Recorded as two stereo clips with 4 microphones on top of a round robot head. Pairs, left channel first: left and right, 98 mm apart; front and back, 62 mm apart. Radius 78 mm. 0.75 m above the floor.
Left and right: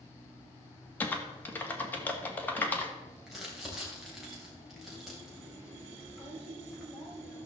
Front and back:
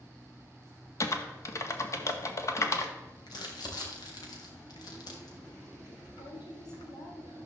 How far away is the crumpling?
About 2.5 m.